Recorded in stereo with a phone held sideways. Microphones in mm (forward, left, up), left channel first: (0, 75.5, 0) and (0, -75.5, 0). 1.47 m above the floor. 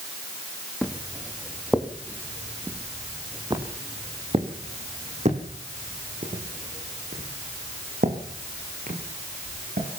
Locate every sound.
0.8 s footsteps: 5° left (ahead or behind), 3 m; by 9.9 s 70° right (ahead or behind), 6 m